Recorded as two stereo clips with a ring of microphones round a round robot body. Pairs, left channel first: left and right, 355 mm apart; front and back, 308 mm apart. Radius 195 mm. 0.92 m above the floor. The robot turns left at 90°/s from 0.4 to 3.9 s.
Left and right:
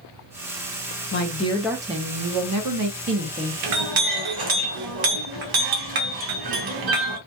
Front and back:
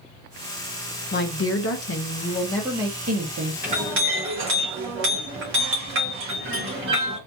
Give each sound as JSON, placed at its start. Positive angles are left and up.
{"t": 1.1, "sound": "a woman speaking", "azimuth_deg": 50, "distance_m": 0.7}
{"t": 3.6, "sound": "a clink", "azimuth_deg": -100, "distance_m": 0.7}